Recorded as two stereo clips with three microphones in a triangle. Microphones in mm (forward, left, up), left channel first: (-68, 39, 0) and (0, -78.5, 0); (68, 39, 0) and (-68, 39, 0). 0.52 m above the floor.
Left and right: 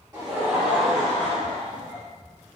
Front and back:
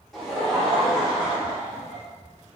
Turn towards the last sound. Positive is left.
turn(degrees=105)